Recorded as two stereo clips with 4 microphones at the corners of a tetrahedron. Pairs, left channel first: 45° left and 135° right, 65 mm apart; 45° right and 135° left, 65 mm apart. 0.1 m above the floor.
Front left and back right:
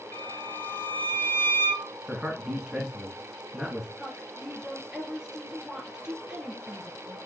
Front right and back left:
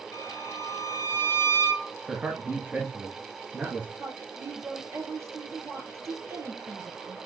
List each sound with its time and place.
0.1 s a violin: 5° right, 0.7 m
2.1 s a man speaking: 160° left, 1.7 m
4.0 s a woman speaking: 150° left, 2 m